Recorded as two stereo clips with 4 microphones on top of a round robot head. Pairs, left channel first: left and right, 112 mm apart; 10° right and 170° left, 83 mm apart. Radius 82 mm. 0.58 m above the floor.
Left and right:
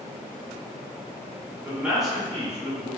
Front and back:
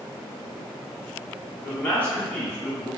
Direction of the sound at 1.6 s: 45° right.